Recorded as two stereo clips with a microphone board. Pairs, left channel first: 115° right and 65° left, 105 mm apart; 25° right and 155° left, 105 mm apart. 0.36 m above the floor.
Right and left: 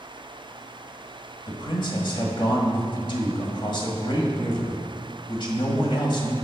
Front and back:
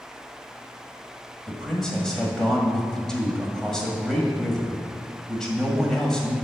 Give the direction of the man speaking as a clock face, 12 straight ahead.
4 o'clock.